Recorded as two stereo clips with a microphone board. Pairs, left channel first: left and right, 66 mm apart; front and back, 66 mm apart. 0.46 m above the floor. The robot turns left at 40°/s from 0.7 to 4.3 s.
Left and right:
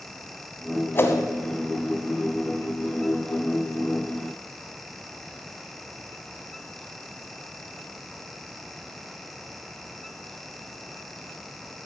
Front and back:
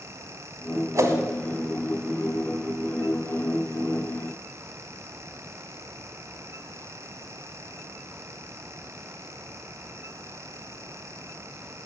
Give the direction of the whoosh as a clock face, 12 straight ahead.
7 o'clock.